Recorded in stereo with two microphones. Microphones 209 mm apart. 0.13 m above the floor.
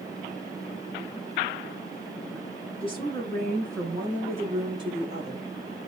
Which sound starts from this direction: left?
A woman speaking, at 2.8 s.